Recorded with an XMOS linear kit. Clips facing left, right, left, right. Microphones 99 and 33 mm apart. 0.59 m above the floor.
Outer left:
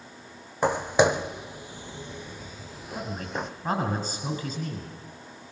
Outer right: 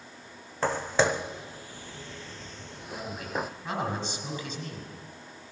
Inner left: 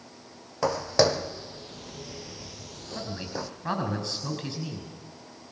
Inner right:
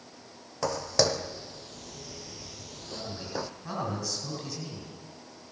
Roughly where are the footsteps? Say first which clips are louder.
Outer left 4 dB, inner left 4 dB; centre.